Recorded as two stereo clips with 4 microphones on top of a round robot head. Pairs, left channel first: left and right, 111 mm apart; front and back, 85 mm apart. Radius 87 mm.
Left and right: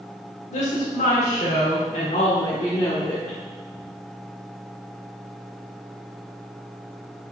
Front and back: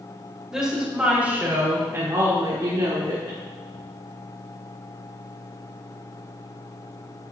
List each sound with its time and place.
0.5 s a woman speaking: 95° left, 3.5 m; by 3.4 s 170° left, 2.5 m